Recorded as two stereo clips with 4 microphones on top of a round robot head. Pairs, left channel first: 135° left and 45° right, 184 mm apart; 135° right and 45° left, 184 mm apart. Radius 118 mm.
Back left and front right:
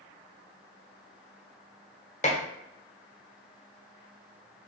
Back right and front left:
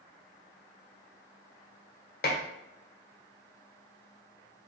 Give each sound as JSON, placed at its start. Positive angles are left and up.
{"t": 2.2, "sound": "dishes clattering", "azimuth_deg": -170, "distance_m": 1.4}